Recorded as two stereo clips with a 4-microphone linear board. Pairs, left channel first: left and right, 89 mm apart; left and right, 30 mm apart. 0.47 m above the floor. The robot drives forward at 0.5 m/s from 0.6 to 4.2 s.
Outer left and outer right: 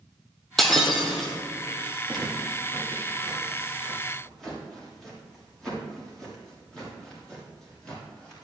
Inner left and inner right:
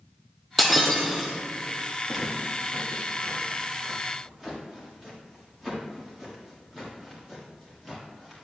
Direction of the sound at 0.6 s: Centre (ahead or behind).